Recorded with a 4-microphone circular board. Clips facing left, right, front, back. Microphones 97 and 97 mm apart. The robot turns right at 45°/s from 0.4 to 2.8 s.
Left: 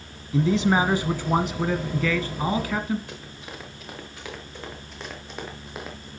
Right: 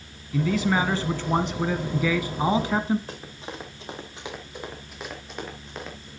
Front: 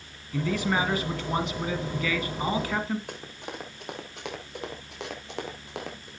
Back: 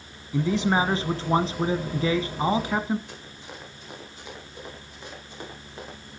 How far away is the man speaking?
About 1.3 m.